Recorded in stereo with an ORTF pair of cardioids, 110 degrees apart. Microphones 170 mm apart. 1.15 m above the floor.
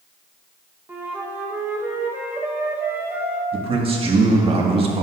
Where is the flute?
15° right, 1.0 m.